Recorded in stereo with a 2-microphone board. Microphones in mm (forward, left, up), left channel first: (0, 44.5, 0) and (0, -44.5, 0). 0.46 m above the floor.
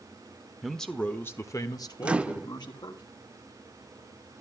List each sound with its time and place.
0.6 s a man speaking: centre (ahead or behind), 1.3 m; by 3.0 s 55° left (ahead or behind), 2.5 m
2.0 s a microwave: 15° right (ahead or behind), 0.5 m